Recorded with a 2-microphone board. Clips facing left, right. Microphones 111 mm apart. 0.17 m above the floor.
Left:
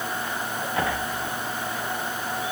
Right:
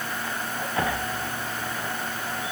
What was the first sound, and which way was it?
Only background noise.